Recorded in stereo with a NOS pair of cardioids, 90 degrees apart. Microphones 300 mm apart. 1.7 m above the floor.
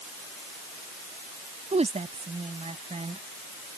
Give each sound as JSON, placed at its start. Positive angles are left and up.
{"t": 1.7, "sound": "a woman speaking", "azimuth_deg": -20}